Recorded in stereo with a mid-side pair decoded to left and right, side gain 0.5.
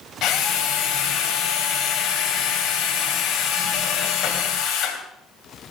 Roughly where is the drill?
Ahead left.